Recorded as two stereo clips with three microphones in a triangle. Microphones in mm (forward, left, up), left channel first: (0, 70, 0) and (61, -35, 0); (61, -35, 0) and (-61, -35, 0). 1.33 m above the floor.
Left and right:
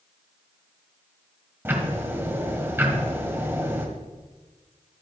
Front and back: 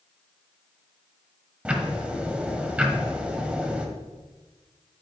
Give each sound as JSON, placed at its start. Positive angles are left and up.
{"t": 1.6, "sound": "ticking", "azimuth_deg": -110, "distance_m": 1.2}